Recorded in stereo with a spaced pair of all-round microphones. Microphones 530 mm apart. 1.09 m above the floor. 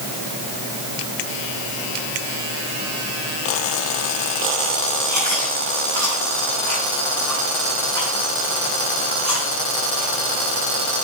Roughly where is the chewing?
Right.